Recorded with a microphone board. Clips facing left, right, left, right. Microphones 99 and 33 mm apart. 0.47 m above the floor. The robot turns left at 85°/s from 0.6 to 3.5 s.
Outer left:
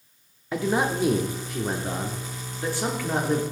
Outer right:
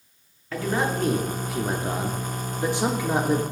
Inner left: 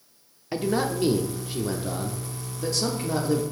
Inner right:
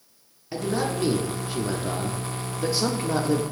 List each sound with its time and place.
0.5 s a man speaking: 20° left (ahead or behind), 0.8 m; by 3.4 s 5° right (ahead or behind), 0.8 m